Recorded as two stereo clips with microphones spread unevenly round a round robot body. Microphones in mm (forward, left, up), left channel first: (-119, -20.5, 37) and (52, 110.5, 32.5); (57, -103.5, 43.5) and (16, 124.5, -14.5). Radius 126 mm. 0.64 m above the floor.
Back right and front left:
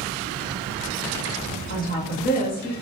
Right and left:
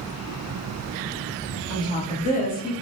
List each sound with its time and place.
1.7 s a woman speaking: 165° right, 1.4 m; by 2.7 s 130° right, 1.5 m